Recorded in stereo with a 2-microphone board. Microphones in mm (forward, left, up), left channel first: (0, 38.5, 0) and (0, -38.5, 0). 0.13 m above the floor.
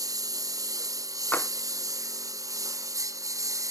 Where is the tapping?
20° left (ahead or behind).